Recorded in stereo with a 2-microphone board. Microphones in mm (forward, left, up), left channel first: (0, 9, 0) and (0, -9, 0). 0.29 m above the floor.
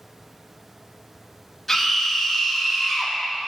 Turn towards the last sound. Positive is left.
turn(degrees=10)  # may be behind; listen again after turning